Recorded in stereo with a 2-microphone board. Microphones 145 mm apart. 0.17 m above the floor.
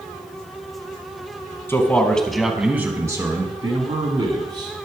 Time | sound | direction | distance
1.7 | a man speaking | 15° left (ahead or behind) | 1.3 m